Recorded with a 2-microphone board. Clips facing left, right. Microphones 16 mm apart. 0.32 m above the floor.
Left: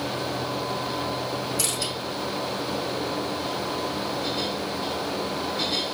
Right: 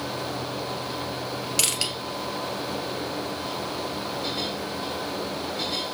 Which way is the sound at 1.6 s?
80° right.